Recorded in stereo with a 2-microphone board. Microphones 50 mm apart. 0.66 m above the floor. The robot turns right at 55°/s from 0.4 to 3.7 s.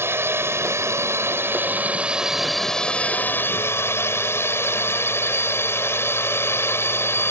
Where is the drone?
115° right; by 7.3 s 65° left.